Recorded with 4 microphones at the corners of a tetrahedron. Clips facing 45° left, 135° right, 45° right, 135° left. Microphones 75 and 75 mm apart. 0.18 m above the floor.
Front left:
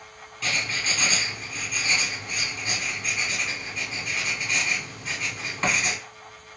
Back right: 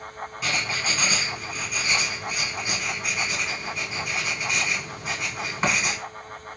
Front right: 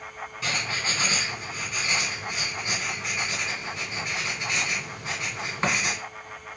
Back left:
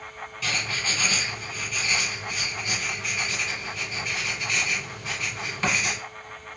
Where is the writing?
70° right, 1.7 m.